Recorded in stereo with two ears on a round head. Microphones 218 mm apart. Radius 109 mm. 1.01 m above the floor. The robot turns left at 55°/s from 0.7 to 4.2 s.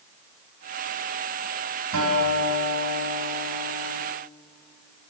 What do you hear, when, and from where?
1.9 s a guitar: 60° right, 5 m; by 3.9 s 170° right, 5 m